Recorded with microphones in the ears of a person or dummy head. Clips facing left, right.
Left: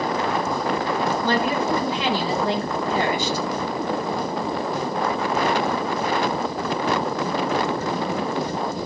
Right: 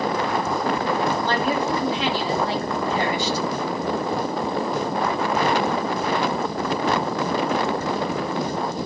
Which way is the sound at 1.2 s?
75° left (ahead or behind).